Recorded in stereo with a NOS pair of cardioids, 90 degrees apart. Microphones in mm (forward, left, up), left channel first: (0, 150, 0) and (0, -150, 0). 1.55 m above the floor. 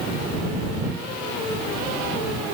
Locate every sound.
Only background noise.